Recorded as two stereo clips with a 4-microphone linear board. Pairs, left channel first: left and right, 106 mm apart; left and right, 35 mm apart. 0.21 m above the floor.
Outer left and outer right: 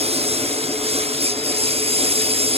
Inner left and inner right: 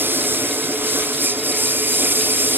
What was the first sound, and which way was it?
A lawn mower, 75° right (ahead or behind).